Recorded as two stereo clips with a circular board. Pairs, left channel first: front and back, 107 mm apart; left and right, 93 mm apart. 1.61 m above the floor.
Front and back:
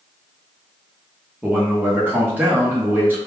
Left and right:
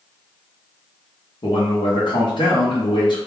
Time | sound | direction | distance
1.4 | a man speaking | 110° left | 0.9 m